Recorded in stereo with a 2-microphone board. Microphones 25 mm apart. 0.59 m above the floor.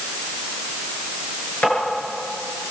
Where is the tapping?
80° left, 9.5 m.